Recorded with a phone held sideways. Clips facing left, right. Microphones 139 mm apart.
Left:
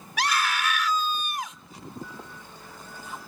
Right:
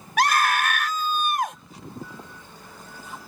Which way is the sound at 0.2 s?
60° right (ahead or behind).